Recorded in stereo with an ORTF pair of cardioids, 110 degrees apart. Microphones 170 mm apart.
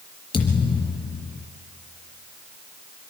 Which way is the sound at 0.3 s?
30° left.